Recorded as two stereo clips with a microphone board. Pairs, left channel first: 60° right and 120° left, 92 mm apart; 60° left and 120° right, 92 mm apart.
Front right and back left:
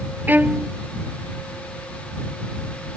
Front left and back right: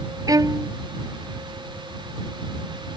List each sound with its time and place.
0.3 s a violin: 170° right